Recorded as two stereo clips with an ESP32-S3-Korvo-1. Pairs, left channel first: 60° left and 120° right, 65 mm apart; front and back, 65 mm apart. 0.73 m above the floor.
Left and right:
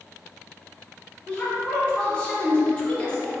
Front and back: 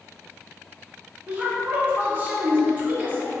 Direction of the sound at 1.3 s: 125° left.